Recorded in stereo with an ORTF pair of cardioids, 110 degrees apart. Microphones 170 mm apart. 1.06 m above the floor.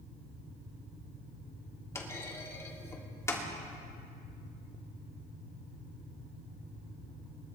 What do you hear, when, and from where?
1.9 s a clunk: 15° left, 2.5 m